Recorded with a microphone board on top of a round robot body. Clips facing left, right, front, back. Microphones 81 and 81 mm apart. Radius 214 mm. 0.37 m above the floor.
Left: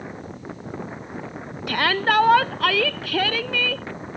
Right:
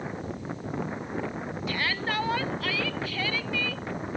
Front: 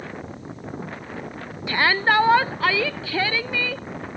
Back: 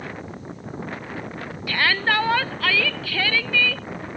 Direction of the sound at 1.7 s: 65° left.